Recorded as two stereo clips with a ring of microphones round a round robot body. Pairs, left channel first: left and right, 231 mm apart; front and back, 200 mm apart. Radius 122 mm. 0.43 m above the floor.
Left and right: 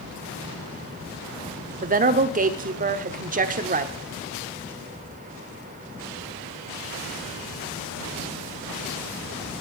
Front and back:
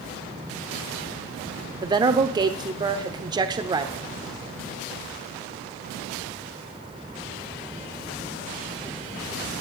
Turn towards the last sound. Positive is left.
turn(degrees=-120)